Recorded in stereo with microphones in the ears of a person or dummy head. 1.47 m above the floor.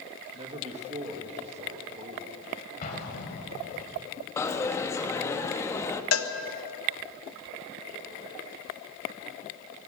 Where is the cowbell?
85° left, 1.4 m.